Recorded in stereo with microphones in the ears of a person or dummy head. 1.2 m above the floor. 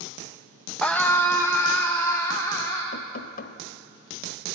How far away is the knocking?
About 1.0 m.